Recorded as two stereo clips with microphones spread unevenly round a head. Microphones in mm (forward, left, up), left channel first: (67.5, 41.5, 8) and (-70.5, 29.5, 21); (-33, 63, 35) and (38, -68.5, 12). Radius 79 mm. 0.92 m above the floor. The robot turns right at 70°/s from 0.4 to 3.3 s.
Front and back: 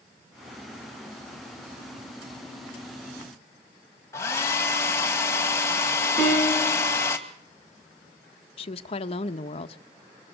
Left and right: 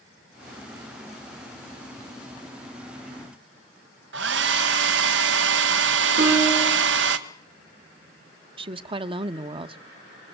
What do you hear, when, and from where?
4.1 s a hair dryer: 70° right, 1.8 m
6.2 s a piano: 95° right, 6.5 m
8.6 s a woman speaking: 25° right, 1.2 m